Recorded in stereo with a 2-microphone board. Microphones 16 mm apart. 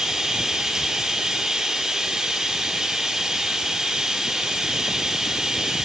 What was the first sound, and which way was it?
Running water, 35° right (ahead or behind).